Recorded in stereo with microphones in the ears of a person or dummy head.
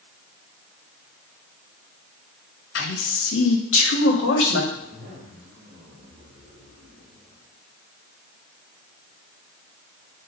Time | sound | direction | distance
2.8 | a man speaking | 70° left (ahead or behind) | 1.1 m
4.7 | a zipper | 60° right (ahead or behind) | 3 m